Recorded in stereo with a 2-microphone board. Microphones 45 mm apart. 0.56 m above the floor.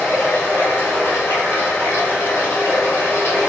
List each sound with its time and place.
0.0 s running water: 65° left (ahead or behind), 1.8 m